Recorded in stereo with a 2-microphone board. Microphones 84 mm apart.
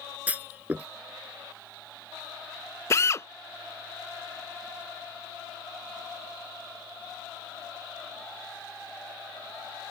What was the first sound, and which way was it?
A clunk, 20° right (ahead or behind).